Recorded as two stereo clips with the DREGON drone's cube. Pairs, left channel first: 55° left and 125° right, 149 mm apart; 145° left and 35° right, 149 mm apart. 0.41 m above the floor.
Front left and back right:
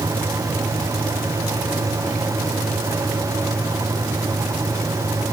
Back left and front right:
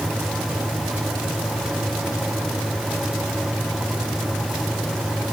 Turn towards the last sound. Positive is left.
No sound to turn to.